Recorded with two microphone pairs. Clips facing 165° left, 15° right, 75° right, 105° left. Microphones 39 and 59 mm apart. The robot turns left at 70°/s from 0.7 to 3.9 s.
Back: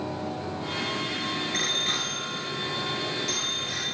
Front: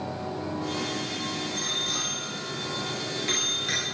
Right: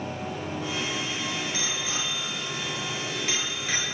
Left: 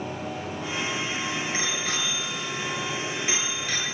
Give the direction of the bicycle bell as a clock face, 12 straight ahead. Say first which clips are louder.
Back 5 dB, left 3 dB; 7 o'clock.